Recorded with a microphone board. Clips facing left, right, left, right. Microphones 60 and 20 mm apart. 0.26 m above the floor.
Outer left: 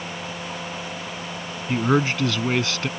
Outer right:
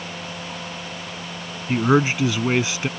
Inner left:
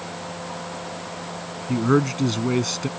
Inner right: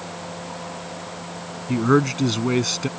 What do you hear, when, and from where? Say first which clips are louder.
1.7 s a man speaking: outer right 3 dB, inner right 2 dB; 15° right (ahead or behind)